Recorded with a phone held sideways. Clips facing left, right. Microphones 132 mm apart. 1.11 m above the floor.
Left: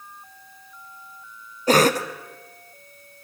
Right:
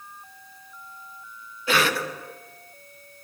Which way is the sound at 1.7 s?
40° left (ahead or behind).